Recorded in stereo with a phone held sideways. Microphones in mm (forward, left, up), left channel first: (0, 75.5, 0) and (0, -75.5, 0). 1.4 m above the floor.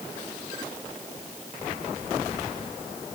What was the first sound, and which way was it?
Only background noise.